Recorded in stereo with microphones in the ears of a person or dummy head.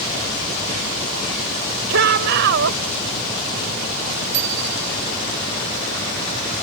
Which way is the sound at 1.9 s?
70° right (ahead or behind).